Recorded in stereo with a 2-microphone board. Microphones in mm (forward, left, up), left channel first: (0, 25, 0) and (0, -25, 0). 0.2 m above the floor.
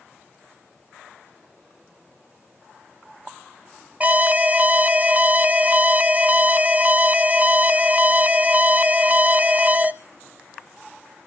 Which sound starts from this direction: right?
An alarm, at 4.0 s.